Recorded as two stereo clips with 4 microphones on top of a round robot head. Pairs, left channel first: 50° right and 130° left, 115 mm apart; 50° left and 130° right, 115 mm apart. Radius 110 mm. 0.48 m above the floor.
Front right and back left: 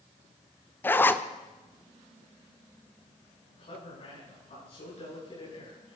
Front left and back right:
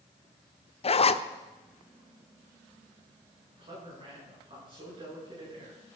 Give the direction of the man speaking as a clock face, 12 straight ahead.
3 o'clock.